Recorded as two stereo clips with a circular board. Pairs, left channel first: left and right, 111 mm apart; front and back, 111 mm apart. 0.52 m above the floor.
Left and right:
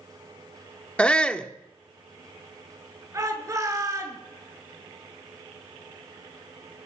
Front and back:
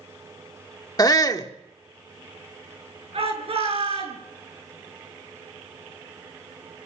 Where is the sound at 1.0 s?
15° left, 1.1 m.